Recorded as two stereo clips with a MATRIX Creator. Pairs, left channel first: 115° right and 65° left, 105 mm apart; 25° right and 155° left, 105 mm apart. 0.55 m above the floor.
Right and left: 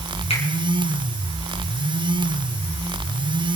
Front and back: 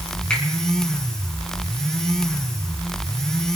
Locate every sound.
0.3 s a finger snap: 105° right, 6 m